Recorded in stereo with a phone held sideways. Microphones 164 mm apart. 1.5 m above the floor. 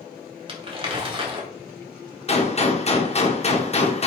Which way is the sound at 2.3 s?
40° left (ahead or behind).